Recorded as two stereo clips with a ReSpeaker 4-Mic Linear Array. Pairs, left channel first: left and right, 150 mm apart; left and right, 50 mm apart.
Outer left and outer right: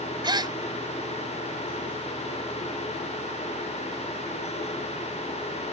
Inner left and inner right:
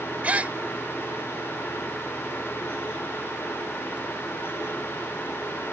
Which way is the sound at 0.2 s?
30° right (ahead or behind).